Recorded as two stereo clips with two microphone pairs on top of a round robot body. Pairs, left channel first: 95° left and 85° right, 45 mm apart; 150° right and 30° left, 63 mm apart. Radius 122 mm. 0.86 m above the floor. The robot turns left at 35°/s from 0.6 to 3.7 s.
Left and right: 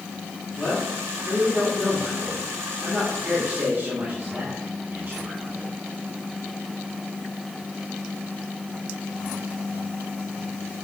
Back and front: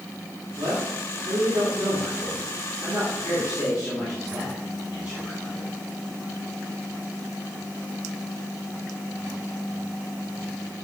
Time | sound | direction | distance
0.6 | a man speaking | 60° left | 2.5 m